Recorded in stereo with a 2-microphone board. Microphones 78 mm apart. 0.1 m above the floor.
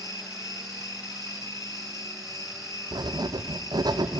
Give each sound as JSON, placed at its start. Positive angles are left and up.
{"t": 0.0, "sound": "an insect", "side_deg": 55, "distance_m": 1.5}
{"t": 2.9, "sound": "writing", "side_deg": -70, "distance_m": 0.9}